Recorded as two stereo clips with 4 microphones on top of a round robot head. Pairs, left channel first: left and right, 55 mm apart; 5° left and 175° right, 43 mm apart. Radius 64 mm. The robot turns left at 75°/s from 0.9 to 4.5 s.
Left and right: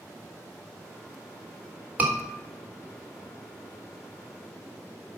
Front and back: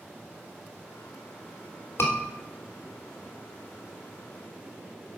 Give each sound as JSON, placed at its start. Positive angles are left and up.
{"t": 2.0, "sound": "a scream", "azimuth_deg": -25, "distance_m": 3.0}